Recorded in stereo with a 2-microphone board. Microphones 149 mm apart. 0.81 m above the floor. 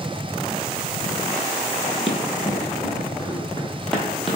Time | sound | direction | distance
2.1 | running footsteps | 35° left (ahead or behind) | 1.0 m